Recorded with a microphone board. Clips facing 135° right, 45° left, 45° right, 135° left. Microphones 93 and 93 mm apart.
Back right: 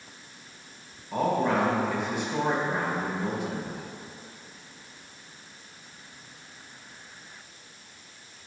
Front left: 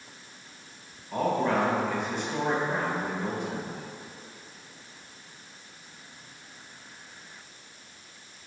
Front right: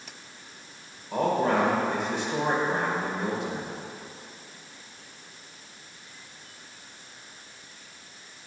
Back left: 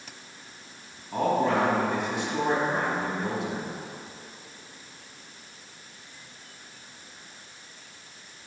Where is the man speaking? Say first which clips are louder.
Back right 1 dB, even; 55° right, 2 m.